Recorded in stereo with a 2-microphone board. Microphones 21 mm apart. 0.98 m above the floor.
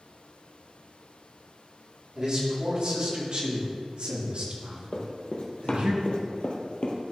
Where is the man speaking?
45° right (ahead or behind), 3 m; by 5.9 s 65° right (ahead or behind), 1.6 m.